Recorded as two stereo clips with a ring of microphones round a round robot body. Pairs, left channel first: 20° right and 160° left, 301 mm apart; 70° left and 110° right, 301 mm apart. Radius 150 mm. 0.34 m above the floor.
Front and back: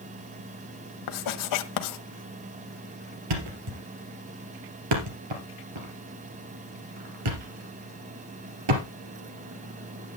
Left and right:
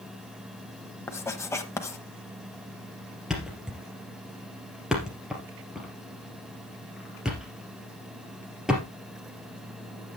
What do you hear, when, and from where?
1.1 s writing: 15° right, 1.0 m
3.3 s a thud: 160° left, 2.5 m